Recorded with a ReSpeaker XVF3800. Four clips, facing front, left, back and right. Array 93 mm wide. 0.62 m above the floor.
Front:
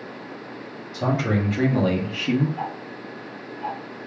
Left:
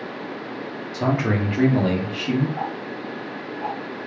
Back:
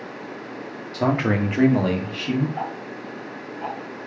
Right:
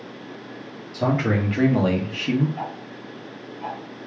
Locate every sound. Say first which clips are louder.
0.9 s a man speaking: even, back 2 dB; 170° left, 1.2 m; by 2.5 s 35° right, 0.9 m
2.6 s ticking: left 4 dB, back 1 dB; 155° left, 1.0 m